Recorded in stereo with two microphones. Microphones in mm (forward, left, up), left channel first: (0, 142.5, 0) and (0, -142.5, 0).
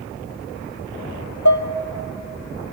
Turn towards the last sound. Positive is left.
turn(degrees=75)  # may be behind; listen again after turning